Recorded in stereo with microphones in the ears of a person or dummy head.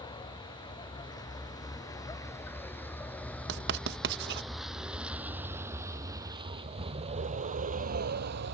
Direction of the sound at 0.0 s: 20° left (ahead or behind).